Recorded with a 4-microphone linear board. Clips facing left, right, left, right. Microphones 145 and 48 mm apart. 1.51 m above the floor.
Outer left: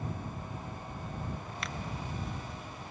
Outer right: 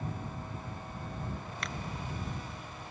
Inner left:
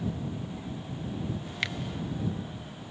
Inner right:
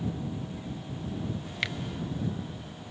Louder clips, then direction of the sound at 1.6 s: Even, even; centre (ahead or behind).